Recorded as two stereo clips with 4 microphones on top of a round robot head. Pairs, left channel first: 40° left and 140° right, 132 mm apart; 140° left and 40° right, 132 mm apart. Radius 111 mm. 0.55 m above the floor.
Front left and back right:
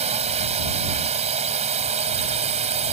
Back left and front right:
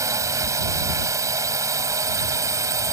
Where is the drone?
105° right.